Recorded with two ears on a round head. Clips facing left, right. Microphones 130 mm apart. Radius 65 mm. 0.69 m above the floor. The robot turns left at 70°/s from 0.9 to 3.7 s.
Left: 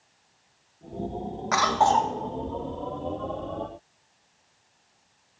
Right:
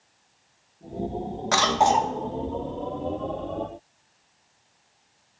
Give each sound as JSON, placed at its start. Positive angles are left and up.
{"t": 1.5, "sound": "a cough", "azimuth_deg": -130, "distance_m": 0.7}